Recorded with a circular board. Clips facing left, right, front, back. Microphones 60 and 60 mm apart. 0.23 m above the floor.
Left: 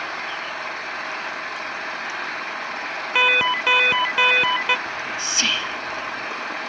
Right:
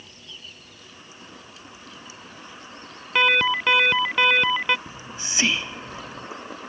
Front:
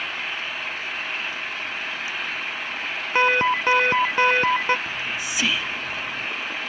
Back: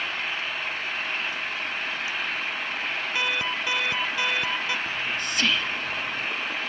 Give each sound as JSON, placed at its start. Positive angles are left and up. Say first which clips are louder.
{"t": 0.0, "sound": "an engine running", "louder": "left 18 dB, even", "azimuth_deg": 90}
{"t": 3.1, "sound": "an alarm", "louder": "left 1 dB, front 11 dB", "azimuth_deg": 10}
{"t": 4.9, "sound": "whispering", "louder": "left 10 dB, even", "azimuth_deg": -70}